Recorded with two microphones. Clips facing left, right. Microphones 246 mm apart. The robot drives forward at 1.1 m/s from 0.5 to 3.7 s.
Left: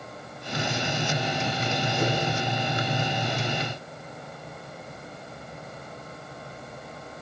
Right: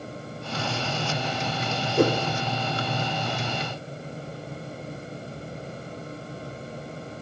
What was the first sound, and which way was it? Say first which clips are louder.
A whoosh: right 8 dB; 60° right (ahead or behind).